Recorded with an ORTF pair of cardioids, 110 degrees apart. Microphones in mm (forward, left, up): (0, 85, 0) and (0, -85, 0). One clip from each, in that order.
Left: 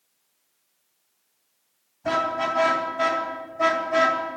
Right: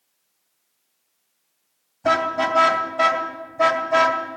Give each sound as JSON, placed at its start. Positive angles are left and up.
{"t": 2.0, "sound": "a car horn", "azimuth_deg": -55, "distance_m": 3.0}